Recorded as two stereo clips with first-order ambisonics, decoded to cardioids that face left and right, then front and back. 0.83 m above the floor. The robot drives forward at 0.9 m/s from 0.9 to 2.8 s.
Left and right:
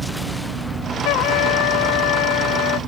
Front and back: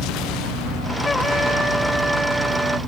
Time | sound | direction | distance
1.1 | a trumpet | 75° left | ?